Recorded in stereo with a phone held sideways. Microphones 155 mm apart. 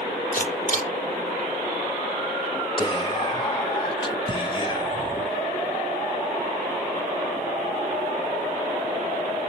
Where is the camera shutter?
55° left (ahead or behind), 5 m.